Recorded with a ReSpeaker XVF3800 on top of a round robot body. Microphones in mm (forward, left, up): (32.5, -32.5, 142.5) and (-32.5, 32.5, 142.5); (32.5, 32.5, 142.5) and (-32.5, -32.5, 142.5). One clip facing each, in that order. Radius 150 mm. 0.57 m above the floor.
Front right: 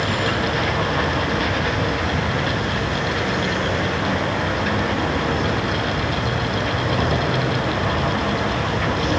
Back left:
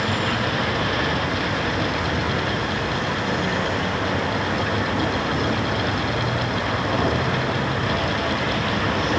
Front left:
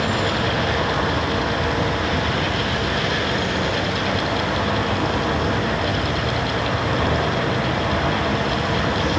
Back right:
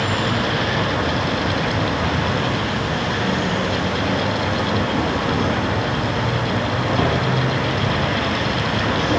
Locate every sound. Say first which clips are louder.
0.0 s an insect: front right 2 dB, even; 135° right, 10 m